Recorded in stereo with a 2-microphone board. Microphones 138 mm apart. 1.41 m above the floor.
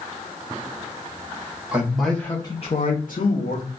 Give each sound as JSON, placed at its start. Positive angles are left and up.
{"t": 1.7, "sound": "a man speaking", "side_deg": -10, "distance_m": 1.1}